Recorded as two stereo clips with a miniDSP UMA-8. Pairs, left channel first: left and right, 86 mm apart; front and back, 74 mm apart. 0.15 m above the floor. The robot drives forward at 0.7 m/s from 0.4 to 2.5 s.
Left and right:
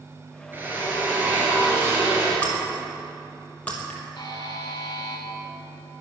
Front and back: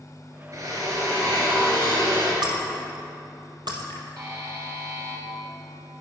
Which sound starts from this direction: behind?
Breaking glass, at 2.4 s.